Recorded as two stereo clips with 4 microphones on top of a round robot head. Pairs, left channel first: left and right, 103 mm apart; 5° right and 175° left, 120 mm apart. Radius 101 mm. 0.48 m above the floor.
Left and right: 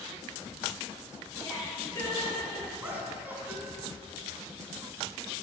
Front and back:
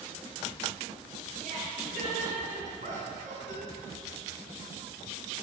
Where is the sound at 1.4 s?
155° left, 6 m; by 2.7 s 160° left, 5.5 m.